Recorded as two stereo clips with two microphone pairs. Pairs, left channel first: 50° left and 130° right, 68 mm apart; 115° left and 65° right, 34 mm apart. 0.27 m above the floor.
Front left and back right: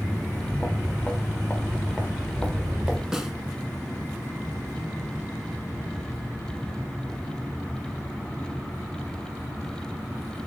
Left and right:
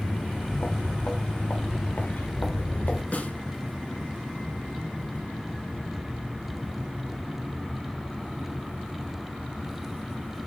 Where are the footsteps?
115° left, 3 m; by 3.0 s 140° left, 1.7 m.